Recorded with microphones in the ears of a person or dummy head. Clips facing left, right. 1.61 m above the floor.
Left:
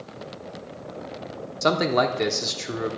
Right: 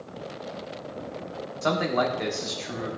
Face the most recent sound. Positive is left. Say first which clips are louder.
# left 4 dB
turn(degrees=55)  # may be behind; listen again after turning